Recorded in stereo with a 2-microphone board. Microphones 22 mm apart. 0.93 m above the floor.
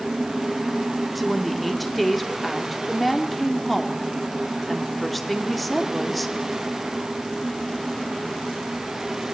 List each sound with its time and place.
1.1 s a woman speaking: centre (ahead or behind), 2.5 m